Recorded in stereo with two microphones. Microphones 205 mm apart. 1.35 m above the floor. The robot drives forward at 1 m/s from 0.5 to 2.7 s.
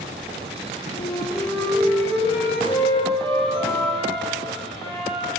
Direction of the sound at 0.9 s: 25° left (ahead or behind).